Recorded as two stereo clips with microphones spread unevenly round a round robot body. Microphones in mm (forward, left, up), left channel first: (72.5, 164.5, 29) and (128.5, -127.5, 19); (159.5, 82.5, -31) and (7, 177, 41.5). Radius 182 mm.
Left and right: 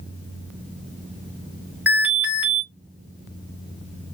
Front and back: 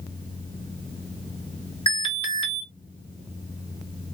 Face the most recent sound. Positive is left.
turn(degrees=5)